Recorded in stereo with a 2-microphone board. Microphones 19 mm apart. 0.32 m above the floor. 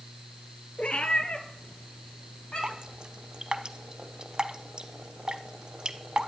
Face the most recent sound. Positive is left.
turn(degrees=-40)  # may be behind; listen again after turning